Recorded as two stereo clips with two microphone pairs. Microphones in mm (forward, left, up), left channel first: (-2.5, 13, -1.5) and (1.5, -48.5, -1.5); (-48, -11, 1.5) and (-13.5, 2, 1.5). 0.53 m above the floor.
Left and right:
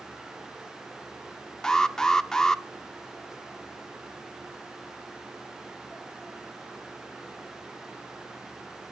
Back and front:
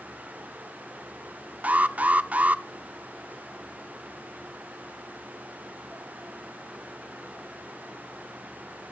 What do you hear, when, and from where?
1.6 s an alarm: 15° left, 0.6 m